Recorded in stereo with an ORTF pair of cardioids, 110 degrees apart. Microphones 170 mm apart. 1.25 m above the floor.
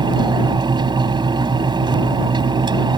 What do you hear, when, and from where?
0.0 s a fan: 25° right